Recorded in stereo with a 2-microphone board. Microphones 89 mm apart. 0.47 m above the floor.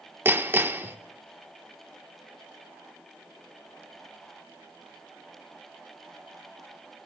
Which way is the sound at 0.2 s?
25° right (ahead or behind).